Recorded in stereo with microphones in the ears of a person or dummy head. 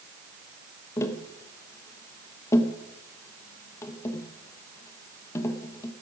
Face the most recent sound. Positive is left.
turn(degrees=20)  # may be behind; listen again after turning